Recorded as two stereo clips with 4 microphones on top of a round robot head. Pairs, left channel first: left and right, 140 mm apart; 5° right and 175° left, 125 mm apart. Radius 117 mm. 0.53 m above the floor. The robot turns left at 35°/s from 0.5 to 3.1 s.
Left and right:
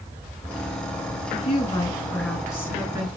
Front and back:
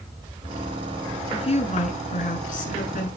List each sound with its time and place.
1.3 s a woman speaking: 40° left, 6 m; by 3.1 s 20° right, 6 m